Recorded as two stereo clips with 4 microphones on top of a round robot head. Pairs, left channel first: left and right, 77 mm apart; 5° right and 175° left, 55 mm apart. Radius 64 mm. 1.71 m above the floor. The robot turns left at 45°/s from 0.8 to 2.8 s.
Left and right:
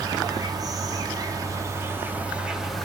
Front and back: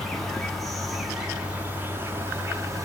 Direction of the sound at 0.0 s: 90° right.